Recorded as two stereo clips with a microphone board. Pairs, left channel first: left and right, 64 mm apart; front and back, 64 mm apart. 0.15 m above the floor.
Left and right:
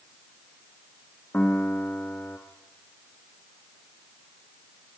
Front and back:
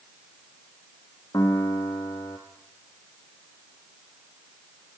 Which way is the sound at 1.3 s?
25° left.